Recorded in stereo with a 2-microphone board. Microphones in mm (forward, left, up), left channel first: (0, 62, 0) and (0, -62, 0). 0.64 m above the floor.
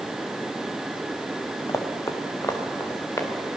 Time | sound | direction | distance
1.7 | running footsteps | 25° left (ahead or behind) | 1.9 m